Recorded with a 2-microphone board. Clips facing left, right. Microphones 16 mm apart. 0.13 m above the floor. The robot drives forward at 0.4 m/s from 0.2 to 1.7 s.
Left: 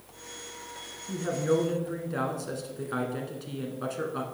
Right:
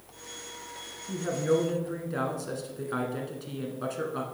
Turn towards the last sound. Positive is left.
turn(degrees=5)  # may be behind; listen again after turning